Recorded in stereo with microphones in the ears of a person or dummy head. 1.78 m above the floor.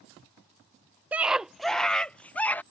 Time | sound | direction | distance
1.1 | a scream | 5° right (ahead or behind) | ?